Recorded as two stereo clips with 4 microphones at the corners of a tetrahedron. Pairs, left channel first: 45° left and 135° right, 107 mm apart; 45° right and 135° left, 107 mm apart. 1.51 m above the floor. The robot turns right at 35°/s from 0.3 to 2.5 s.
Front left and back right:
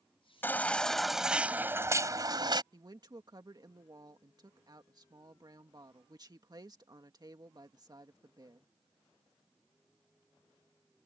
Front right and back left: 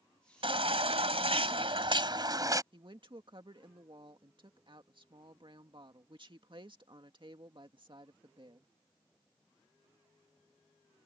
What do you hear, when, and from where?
0.4 s a baby crying: 115° left; by 2.6 s 175° right
2.7 s a woman speaking: 175° left